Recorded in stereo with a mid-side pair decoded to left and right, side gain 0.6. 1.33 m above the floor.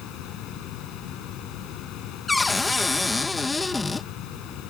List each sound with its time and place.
0.0 s a fan: 65° left
2.3 s a cupboard door: 15° left